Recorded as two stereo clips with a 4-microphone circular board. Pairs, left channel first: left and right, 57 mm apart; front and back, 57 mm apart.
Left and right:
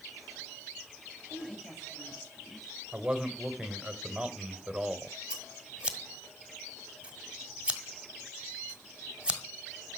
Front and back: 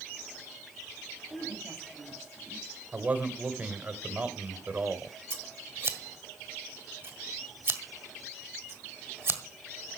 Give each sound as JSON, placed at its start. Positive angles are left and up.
{"t": 1.3, "sound": "a woman speaking", "azimuth_deg": -175, "distance_m": 10.0}
{"t": 2.9, "sound": "a man speaking", "azimuth_deg": -160, "distance_m": 1.6}
{"t": 5.3, "sound": "scissors", "azimuth_deg": -155, "distance_m": 1.6}